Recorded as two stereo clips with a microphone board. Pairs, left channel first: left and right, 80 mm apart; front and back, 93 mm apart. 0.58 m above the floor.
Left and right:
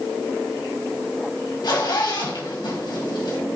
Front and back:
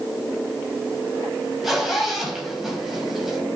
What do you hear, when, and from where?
1.6 s a zipper: 90° left, 4 m